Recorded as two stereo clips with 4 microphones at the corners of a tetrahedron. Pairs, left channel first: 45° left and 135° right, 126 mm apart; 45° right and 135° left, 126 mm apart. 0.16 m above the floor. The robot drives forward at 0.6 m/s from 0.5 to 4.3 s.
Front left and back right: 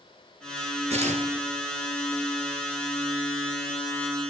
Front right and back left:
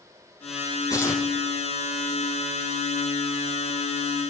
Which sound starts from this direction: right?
Tearing paper, at 0.9 s.